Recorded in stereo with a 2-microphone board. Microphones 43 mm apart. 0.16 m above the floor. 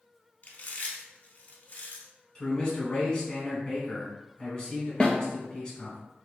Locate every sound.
0.4 s chewing: 40° left (ahead or behind), 0.5 m
2.4 s a man speaking: 20° left (ahead or behind), 1.1 m
5.0 s a snare drum: 20° left (ahead or behind), 0.6 m